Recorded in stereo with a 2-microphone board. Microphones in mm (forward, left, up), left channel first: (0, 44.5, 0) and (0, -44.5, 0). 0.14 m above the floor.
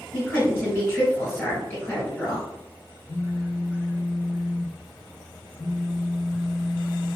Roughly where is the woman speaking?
Left.